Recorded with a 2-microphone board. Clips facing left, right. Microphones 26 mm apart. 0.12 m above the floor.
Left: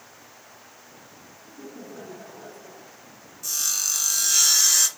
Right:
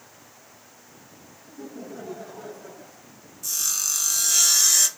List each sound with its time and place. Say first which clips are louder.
1.4 s laughter: right 3 dB; centre (ahead or behind), 3.5 m; by 3.1 s 20° right (ahead or behind), 2.5 m
3.4 s sawing: even; 15° left (ahead or behind), 1.6 m